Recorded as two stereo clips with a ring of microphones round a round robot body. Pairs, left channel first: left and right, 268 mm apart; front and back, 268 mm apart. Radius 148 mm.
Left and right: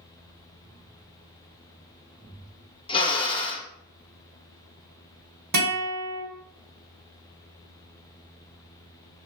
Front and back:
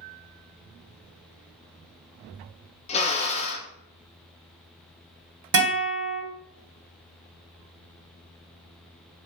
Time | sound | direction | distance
2.9 | a drill | 35° left | 0.5 m
5.5 | a guitar | 150° right | 1.6 m